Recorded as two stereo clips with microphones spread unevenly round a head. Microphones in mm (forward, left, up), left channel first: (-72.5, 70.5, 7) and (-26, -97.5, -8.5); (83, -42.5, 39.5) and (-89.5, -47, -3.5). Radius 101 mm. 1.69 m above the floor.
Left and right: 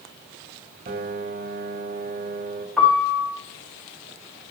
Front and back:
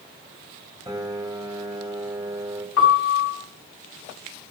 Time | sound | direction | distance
0.9 | a piano | 100° right | 2.5 m
2.8 | a piano | 15° left | 4.5 m